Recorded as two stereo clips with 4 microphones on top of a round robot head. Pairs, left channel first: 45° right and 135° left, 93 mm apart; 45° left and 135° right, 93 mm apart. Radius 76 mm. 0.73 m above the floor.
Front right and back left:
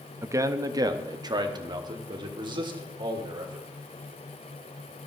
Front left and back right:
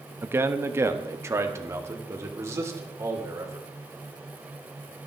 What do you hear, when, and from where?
0.2 s a man speaking: 175° left, 0.9 m; by 3.7 s 170° left, 3 m